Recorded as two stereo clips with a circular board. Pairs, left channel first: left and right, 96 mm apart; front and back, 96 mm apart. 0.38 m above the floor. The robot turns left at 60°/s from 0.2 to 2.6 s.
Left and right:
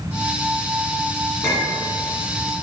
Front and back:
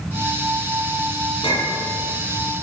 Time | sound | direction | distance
1.4 | a clink | 25° left | 2.5 m